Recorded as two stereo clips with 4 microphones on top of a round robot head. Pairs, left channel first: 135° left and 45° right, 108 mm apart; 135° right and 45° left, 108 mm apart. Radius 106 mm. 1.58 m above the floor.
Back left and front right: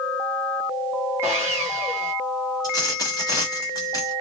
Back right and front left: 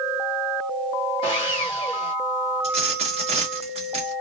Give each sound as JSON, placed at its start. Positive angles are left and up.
{"t": 1.2, "sound": "sawing", "azimuth_deg": -115, "distance_m": 1.0}
{"t": 2.6, "sound": "a dropped coin", "azimuth_deg": 80, "distance_m": 1.2}